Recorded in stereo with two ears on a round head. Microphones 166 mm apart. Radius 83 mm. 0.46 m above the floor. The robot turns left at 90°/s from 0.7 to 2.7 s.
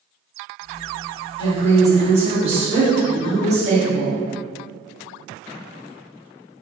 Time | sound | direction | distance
1.4 | a woman speaking | 45° left | 0.9 m